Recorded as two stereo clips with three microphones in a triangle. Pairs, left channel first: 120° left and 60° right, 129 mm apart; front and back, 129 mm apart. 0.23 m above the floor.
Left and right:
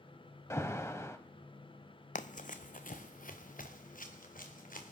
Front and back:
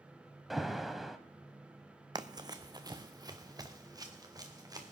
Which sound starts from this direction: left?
An alarm, at 0.5 s.